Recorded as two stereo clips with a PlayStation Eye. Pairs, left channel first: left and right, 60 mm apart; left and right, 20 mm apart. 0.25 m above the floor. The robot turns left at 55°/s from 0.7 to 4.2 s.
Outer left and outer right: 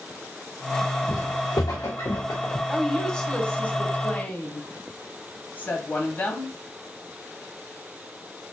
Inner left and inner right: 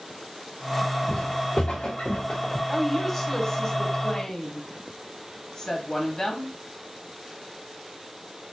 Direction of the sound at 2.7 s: Centre (ahead or behind).